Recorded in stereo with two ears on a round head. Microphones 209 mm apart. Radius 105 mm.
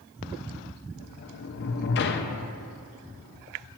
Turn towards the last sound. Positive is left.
turn(degrees=45)  # may be behind; listen again after turning